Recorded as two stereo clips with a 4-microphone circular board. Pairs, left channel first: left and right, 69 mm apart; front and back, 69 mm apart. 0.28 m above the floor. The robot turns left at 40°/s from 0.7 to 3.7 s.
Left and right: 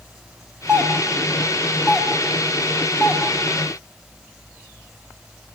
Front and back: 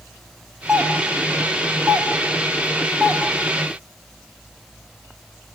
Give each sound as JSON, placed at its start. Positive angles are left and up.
{"t": 0.7, "sound": "a doorbell", "azimuth_deg": -130, "distance_m": 1.8}